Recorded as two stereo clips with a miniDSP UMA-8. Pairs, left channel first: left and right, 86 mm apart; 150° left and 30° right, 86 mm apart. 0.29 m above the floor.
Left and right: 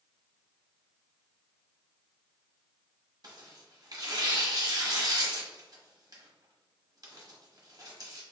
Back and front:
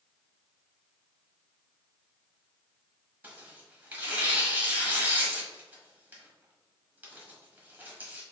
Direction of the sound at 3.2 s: 90° right.